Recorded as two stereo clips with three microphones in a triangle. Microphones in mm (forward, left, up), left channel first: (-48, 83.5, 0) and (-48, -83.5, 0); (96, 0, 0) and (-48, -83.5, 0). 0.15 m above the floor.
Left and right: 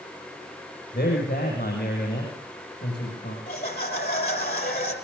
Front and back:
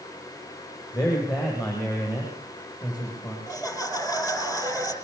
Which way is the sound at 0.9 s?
95° left.